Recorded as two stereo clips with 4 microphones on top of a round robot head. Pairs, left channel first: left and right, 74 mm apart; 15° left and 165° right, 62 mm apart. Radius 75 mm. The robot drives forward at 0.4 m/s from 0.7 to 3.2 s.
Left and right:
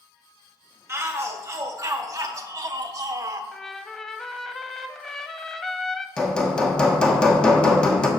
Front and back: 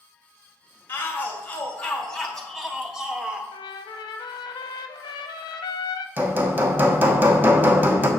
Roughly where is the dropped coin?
No dropped coin in this recording.